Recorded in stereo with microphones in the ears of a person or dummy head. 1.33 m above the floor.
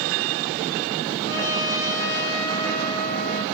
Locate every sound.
1.2 s a trumpet: 15° left (ahead or behind), 3.5 m